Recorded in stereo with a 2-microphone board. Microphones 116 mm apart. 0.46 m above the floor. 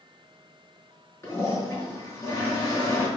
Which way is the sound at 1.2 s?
25° left (ahead or behind).